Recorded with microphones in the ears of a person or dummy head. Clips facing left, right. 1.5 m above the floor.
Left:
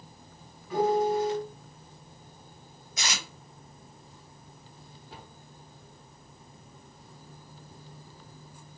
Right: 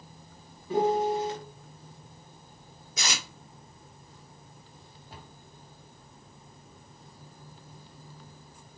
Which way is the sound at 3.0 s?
70° right (ahead or behind).